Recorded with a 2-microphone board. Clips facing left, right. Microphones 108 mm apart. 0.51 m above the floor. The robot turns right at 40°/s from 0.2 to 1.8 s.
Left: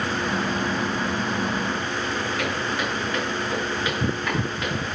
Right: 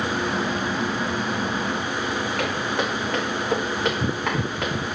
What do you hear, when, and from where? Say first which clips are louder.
2.4 s footsteps: right 2 dB; 60° right (ahead or behind), 2.5 m; by 4.8 s 70° right (ahead or behind), 1.8 m